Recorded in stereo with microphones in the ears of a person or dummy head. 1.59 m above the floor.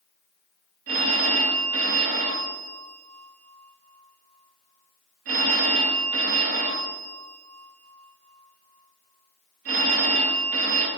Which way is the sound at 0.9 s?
40° right (ahead or behind).